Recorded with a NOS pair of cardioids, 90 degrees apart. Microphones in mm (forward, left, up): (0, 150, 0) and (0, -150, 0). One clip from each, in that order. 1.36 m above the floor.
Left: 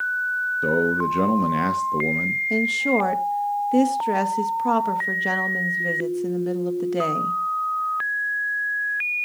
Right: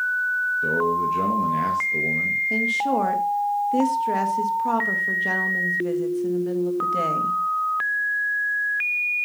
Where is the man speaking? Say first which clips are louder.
Even; 45° left, 1.2 m.